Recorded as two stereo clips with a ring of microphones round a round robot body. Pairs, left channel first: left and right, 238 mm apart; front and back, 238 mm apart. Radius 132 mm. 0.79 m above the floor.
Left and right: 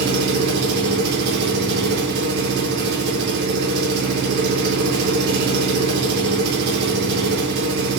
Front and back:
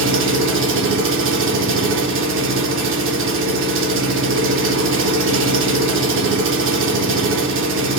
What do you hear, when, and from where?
0.0 s an engine running: 145° right, 0.7 m